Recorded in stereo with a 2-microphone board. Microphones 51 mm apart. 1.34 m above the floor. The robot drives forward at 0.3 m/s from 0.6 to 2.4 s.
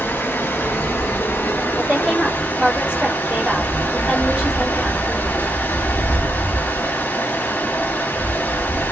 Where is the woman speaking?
20° right (ahead or behind), 1.6 m.